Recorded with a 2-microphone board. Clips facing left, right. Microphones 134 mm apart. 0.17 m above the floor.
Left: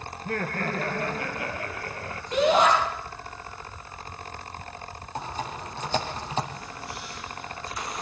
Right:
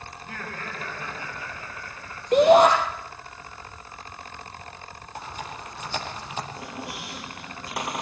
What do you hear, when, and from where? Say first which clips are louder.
0.1 s laughter: left 9 dB; 55° left (ahead or behind), 3.5 m; by 2.2 s 75° left (ahead or behind), 4 m
2.3 s a shout: right 6 dB; 55° right (ahead or behind), 4.5 m
5.2 s typing on a keyboard: left 3 dB; 30° left (ahead or behind), 5 m
6.6 s a squeak: right 2 dB; 75° right (ahead or behind), 2.5 m